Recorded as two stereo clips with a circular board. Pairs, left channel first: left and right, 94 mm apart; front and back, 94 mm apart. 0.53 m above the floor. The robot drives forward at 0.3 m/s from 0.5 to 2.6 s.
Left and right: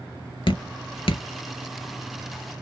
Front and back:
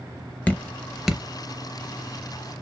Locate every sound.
0.5 s dripping: 70° left, 0.6 m; by 1.2 s 95° left, 0.5 m